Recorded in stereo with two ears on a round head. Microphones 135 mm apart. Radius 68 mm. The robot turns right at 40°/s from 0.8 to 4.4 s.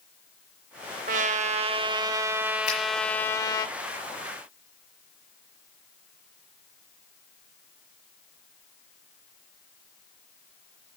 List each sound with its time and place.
1.1 s a trumpet: 70° right, 0.6 m; by 3.7 s 35° left, 0.6 m
2.7 s a finger snap: 50° left (ahead or behind), 6 m; by 2.8 s 40° left (ahead or behind), 6 m